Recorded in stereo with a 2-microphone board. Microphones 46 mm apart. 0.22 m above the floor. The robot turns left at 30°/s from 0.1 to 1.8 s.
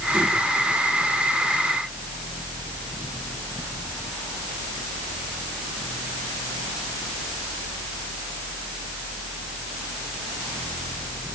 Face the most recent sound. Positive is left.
No sound to turn to.